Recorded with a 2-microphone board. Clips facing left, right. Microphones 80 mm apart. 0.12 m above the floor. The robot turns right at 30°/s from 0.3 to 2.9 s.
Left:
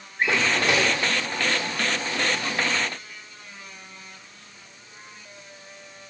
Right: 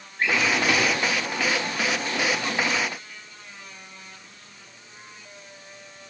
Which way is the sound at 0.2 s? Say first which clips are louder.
Even; 20° left (ahead or behind).